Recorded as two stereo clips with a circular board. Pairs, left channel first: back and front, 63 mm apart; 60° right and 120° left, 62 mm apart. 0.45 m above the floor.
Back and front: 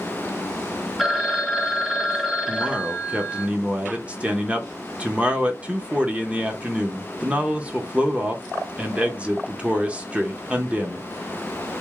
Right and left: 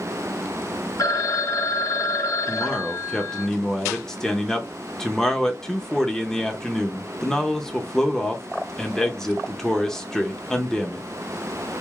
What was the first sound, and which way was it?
A phone ringing, 85° right.